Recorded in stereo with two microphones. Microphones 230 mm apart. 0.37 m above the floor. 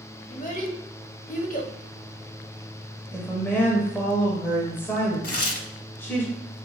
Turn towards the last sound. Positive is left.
turn(degrees=80)